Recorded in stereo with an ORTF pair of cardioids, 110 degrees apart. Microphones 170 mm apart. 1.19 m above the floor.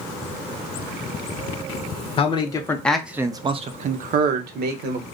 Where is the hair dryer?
I don't hear a hair dryer.